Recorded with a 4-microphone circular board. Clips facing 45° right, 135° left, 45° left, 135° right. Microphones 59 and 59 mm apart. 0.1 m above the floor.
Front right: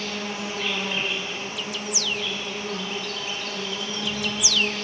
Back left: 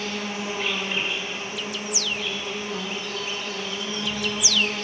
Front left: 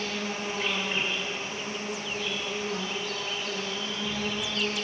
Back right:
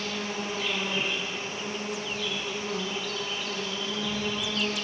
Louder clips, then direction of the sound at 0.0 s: Back left 1 dB, even; 75° left.